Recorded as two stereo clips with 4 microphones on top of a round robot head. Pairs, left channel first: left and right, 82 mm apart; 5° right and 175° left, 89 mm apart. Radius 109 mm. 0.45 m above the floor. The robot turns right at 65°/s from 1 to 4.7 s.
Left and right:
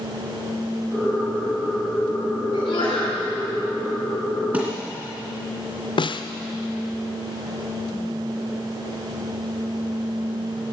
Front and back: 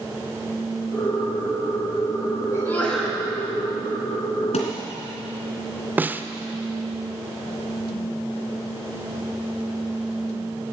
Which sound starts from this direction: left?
A snare drum, at 6.0 s.